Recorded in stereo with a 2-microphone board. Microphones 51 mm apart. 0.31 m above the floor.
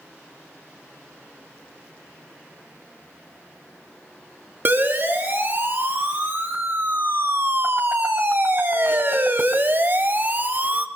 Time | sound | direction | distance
4.7 | a siren | 45° right (ahead or behind) | 5 m